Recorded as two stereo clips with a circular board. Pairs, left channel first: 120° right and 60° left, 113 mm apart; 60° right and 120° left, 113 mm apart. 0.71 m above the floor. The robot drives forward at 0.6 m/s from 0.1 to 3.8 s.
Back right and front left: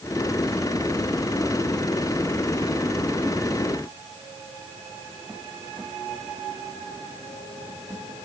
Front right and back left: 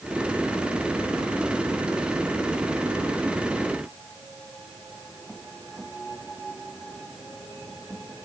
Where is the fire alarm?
I don't hear a fire alarm.